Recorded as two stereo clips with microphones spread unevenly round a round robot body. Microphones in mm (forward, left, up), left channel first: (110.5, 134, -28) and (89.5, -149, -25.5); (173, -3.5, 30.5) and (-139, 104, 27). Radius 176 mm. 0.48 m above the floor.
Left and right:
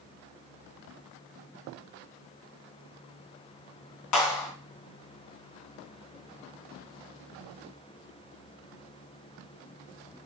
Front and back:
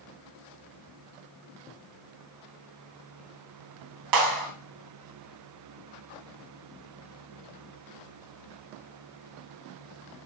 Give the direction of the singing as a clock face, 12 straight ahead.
I don't hear singing.